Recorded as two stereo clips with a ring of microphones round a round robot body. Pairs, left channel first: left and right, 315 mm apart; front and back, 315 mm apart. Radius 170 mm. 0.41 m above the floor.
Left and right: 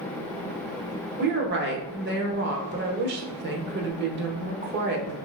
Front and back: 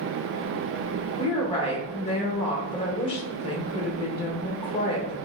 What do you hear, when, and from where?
1.2 s a woman speaking: 60° right, 0.9 m